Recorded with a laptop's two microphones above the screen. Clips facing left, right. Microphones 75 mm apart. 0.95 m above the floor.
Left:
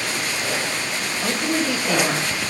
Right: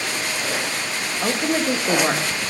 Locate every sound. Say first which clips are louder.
1.2 s a woman speaking: right 2 dB; 30° right (ahead or behind), 0.9 m